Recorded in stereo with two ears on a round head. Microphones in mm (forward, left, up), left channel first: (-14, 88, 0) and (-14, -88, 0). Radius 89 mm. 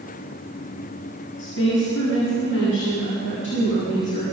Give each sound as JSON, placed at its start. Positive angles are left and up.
{"t": 1.4, "sound": "a woman speaking", "side_deg": 70, "distance_m": 7.5}